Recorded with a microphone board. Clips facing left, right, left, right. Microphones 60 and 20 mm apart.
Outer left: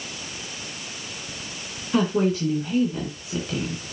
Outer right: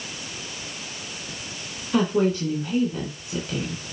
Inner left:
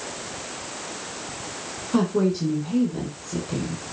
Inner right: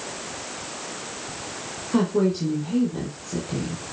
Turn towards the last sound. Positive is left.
turn(degrees=-5)  # may be behind; listen again after turning